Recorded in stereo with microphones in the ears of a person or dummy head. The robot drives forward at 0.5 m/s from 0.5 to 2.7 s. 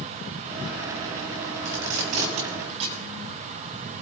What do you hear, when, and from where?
1.6 s tape being pulled: 40° right (ahead or behind), 1.5 m; by 3.0 s 30° right (ahead or behind), 1.8 m